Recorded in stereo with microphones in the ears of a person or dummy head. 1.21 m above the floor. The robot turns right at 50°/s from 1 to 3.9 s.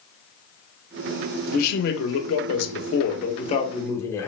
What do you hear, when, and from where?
1.5 s a man speaking: 45° left, 1.0 m; by 4.3 s 165° left, 1.0 m